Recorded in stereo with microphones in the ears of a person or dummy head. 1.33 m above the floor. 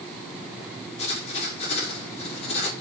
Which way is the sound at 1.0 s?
40° left (ahead or behind).